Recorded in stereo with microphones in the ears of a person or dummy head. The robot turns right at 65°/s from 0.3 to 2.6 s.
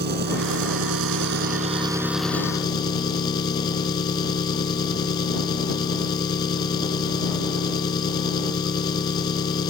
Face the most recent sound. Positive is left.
turn(degrees=30)